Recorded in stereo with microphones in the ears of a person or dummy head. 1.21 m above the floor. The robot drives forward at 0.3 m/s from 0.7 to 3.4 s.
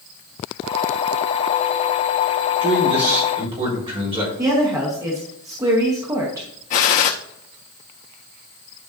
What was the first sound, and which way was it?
A man speaking, 25° right (ahead or behind).